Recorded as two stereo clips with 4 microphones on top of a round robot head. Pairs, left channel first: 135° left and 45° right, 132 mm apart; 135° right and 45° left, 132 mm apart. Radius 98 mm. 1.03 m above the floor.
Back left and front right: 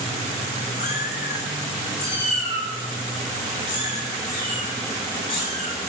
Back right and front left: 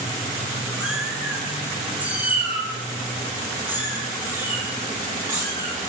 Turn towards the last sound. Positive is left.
turn(degrees=110)